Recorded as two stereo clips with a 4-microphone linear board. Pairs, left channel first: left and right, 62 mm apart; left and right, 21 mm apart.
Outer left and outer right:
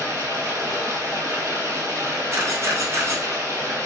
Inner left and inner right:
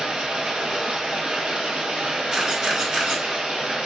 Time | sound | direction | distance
0.0 | running water | 60° right (ahead or behind) | 1.1 m
2.3 | a camera shutter | 45° right (ahead or behind) | 0.9 m